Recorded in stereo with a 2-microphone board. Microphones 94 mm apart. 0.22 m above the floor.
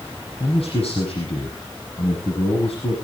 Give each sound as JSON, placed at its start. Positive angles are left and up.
{"t": 0.4, "sound": "a man speaking", "side_deg": 75, "distance_m": 6.0}